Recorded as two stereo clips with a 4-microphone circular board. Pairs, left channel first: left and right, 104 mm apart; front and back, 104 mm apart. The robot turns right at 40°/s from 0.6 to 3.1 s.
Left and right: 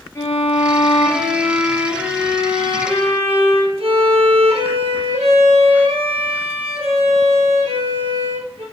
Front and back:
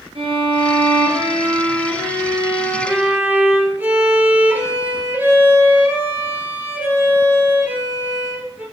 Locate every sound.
0.1 s a violin: 150° left, 2 m; by 8.6 s 110° right, 2 m